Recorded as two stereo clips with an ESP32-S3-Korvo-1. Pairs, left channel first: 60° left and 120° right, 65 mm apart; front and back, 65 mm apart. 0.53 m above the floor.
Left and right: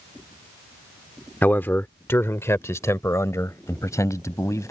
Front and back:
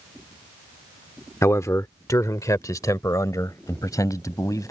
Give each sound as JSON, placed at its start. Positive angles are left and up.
{"t": 1.4, "sound": "a man speaking", "azimuth_deg": 10}